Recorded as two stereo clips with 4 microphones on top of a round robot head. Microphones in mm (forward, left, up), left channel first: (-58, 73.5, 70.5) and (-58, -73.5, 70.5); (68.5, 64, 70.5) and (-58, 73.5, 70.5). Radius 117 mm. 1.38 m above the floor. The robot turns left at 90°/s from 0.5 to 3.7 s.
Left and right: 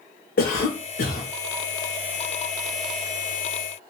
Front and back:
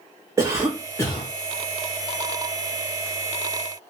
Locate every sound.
0.4 s a cough: 110° left, 0.6 m; by 1.3 s 40° left, 0.6 m